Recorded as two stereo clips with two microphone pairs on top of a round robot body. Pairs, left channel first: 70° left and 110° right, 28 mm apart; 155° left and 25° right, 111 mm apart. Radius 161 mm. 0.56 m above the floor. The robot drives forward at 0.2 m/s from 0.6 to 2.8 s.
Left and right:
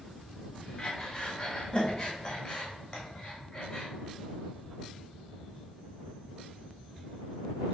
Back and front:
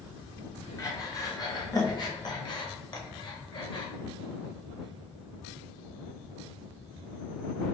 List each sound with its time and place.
0.8 s breathing: 115° left, 1.5 m; by 3.9 s 135° left, 1.7 m